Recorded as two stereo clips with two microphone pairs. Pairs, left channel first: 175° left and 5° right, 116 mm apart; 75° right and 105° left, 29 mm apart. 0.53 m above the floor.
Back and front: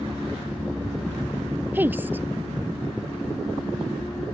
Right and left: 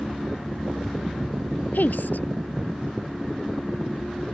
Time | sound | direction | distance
1.7 | a woman speaking | 75° right | ?